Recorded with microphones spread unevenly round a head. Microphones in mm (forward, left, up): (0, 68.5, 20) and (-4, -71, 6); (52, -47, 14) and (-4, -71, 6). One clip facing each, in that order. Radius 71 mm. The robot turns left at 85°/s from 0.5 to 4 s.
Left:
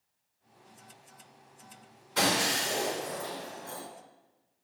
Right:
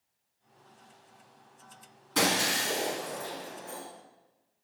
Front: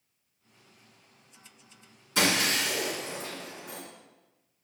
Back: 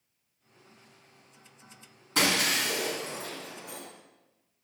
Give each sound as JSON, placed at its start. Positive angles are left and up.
{"t": 2.1, "sound": "breaking glass", "azimuth_deg": -120, "distance_m": 3.0}